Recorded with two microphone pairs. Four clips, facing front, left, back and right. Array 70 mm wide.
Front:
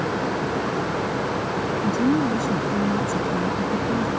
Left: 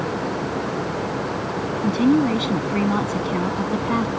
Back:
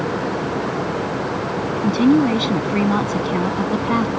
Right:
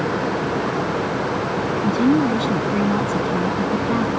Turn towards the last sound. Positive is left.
turn(degrees=160)